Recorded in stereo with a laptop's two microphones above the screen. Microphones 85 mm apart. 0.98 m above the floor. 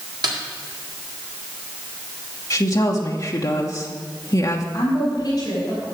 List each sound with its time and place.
0.2 s a snare drum: 55° right (ahead or behind), 1.8 m
2.5 s a woman speaking: 45° left (ahead or behind), 1.0 m
4.7 s a woman speaking: 35° left (ahead or behind), 4 m